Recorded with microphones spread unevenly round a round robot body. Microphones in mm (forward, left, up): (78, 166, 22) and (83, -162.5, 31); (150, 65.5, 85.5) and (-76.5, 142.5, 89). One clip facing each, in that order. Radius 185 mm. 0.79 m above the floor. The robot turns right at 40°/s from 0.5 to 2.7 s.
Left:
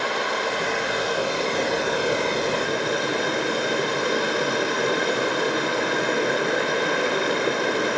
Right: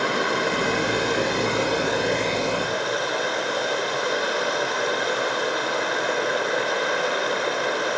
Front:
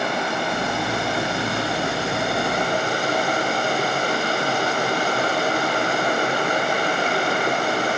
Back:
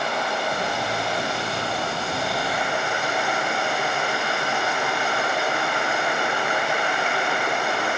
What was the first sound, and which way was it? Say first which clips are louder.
Running water: right 3 dB, front 2 dB; 55° right.